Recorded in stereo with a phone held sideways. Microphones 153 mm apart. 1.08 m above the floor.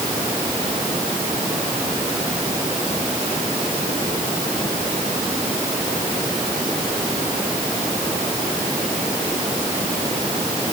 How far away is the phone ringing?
No phone ringing in this recording.